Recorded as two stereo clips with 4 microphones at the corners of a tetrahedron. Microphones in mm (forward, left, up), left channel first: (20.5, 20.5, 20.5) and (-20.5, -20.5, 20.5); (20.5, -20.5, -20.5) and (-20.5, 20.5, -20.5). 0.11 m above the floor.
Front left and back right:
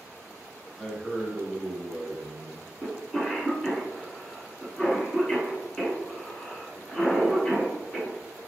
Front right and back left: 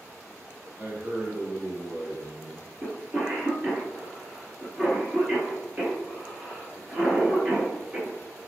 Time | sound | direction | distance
0.8 | a man speaking | 105° left | 1.1 m
2.8 | a cough | 120° left | 1.6 m